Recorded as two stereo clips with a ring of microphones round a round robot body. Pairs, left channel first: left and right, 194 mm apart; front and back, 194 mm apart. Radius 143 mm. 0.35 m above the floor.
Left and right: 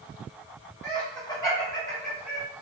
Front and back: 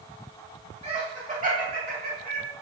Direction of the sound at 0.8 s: 140° left.